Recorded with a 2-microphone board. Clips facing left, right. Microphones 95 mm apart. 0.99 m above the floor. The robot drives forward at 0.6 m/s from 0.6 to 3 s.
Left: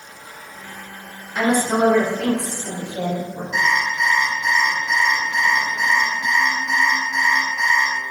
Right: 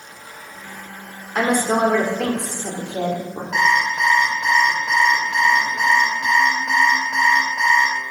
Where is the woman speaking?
55° right (ahead or behind), 3 m; by 3.4 s 70° right (ahead or behind), 2.5 m.